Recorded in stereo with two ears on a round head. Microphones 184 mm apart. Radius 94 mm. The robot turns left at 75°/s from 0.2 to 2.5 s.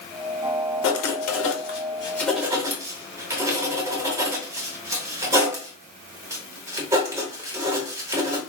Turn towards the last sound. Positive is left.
turn(degrees=-15)  # may be behind; listen again after turning